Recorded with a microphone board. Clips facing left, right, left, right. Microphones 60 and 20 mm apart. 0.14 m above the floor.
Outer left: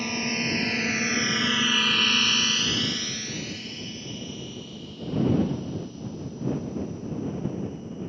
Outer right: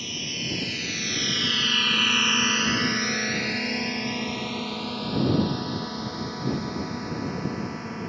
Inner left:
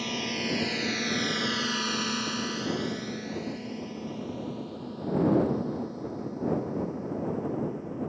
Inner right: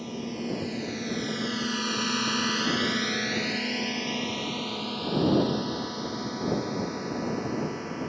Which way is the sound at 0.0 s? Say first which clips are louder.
Outer left 6 dB, inner left 3 dB; 50° left (ahead or behind).